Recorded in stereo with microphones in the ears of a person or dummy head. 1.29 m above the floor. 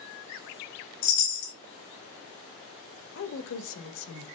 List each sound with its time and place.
1.0 s a chime: 70° left (ahead or behind), 5 m
3.1 s a woman speaking: 65° left (ahead or behind), 1.9 m